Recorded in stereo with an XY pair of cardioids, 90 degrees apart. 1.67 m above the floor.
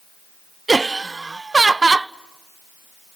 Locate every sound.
0.7 s laughter: 25° right, 0.6 m